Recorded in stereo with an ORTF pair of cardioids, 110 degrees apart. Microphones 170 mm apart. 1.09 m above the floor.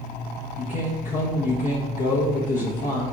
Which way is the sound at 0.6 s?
55° left.